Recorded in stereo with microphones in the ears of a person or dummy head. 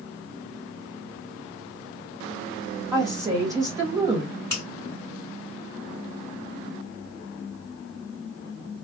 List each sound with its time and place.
2.9 s a woman speaking: 20° right (ahead or behind), 1.5 m
4.5 s a finger snap: 10° left (ahead or behind), 2.5 m